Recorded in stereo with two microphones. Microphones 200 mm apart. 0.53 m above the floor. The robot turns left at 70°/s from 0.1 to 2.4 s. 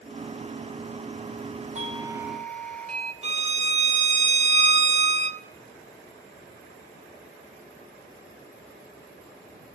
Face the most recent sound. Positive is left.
turn(degrees=-30)  # may be behind; listen again after turning